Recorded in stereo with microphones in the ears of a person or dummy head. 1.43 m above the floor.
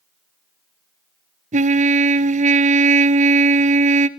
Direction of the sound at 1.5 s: 45° right (ahead or behind).